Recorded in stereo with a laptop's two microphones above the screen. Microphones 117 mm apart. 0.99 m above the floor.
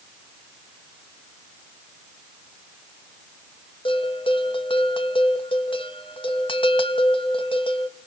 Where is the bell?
50° left (ahead or behind), 1.3 m.